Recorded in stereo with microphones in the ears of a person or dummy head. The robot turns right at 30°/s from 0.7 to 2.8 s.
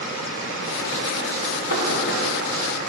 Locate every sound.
1.7 s knocking: 85° left, 1.3 m; by 2.2 s 70° left (ahead or behind), 1.3 m